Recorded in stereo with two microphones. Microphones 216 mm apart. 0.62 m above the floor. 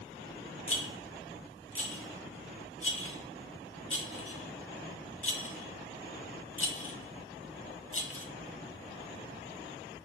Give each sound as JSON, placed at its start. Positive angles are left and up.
{"t": 0.7, "sound": "a rattle", "side_deg": 70, "distance_m": 1.3}